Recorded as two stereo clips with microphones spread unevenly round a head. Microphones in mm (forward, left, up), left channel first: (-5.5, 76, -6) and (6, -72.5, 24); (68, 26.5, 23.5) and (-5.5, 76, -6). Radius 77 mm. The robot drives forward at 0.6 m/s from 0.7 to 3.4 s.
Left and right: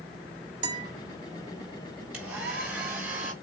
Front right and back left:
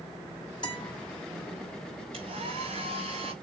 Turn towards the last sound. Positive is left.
turn(degrees=-170)